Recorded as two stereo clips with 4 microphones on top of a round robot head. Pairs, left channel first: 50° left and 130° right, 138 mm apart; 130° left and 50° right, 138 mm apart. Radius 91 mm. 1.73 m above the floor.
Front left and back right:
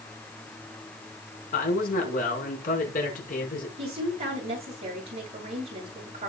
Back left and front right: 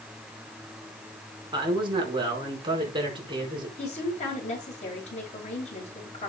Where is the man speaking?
10° left, 5 m.